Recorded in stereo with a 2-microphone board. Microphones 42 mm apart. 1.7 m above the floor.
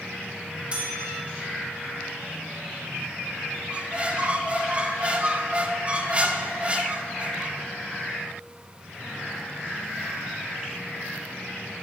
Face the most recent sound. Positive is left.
turn(degrees=-25)  # may be behind; listen again after turning